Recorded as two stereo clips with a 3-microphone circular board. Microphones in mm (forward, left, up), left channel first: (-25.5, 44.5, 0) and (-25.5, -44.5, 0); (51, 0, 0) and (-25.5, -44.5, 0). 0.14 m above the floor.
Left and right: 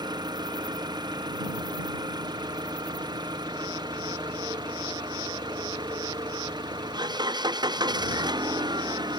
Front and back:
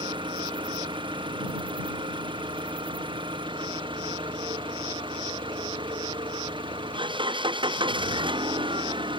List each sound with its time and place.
0.0 s an engine running: 125° right